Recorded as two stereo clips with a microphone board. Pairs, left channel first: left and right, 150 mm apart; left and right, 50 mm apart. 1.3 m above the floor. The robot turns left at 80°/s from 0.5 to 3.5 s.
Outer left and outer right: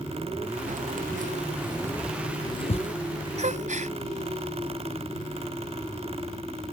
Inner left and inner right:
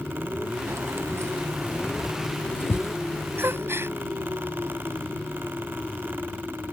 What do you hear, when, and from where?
0.7 s keys jangling: 65° right (ahead or behind); by 3.0 s 65° left (ahead or behind)
3.4 s a gasp: 55° right (ahead or behind); by 4.0 s 60° right (ahead or behind)